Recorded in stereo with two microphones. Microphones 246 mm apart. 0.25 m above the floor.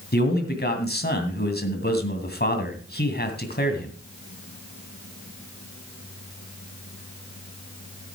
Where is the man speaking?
45° left (ahead or behind), 2 m.